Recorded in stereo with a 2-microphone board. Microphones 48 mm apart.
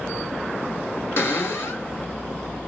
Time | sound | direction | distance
1.2 | a cupboard door | 60° left (ahead or behind) | 1.5 m